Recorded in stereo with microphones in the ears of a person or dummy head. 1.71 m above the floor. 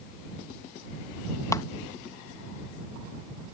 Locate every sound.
1.5 s a clap: 20° left (ahead or behind)